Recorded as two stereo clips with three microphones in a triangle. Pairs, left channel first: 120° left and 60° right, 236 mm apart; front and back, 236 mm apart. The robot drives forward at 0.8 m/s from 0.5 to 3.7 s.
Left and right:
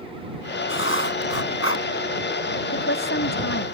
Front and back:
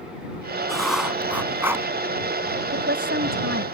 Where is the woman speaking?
140° left; by 3.6 s 150° left.